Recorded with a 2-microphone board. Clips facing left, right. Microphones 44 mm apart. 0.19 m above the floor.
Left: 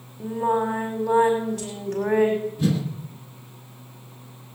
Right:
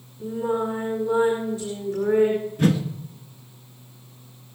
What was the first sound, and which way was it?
Singing, 80° left.